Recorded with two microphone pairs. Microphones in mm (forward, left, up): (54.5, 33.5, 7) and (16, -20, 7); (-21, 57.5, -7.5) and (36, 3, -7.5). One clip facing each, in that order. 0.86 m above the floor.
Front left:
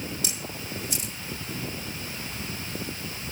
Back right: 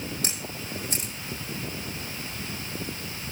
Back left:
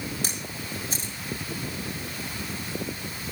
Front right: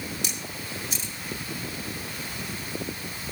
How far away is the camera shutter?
About 4 m.